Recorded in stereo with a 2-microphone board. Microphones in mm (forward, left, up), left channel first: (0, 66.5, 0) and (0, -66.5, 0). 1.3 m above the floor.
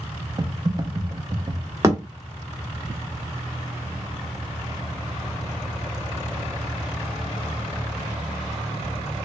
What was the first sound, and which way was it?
Typing on a keyboard, 30° right (ahead or behind).